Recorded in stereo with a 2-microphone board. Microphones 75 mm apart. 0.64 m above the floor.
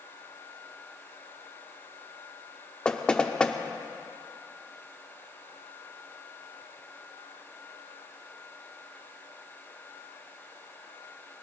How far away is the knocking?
About 0.7 m.